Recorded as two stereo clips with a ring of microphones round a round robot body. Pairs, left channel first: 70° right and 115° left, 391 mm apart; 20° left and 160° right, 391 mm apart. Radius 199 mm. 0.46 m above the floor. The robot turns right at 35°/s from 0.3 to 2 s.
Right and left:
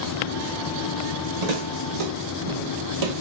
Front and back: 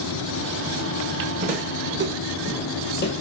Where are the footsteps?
130° left, 1.5 m; by 3.2 s 75° left, 0.8 m.